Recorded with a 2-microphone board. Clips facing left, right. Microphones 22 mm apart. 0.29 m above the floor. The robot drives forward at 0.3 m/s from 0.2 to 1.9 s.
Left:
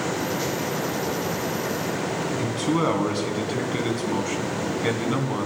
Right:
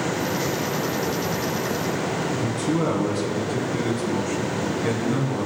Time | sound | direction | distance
2.4 | a man speaking | 50° left (ahead or behind) | 2.0 m